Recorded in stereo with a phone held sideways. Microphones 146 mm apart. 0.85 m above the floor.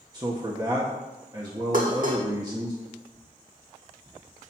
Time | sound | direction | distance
0.1 | a man speaking | 30° right (ahead or behind) | 1.1 m
1.7 | dishes clattering | 65° right (ahead or behind) | 1.5 m